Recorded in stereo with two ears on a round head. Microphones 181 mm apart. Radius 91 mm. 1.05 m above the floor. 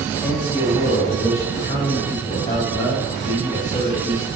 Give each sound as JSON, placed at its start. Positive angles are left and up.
{"t": 0.2, "sound": "a man speaking", "side_deg": 35, "distance_m": 7.0}